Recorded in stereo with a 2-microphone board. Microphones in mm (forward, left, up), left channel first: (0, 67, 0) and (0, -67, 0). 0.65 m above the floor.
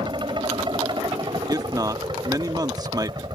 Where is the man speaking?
30° right (ahead or behind).